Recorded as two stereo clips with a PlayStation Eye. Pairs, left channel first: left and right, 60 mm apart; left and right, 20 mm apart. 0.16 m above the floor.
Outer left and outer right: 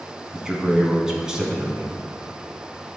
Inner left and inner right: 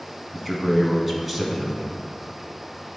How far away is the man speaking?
About 1.2 m.